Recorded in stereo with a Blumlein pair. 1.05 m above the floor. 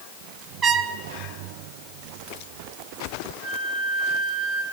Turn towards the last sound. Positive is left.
turn(degrees=-15)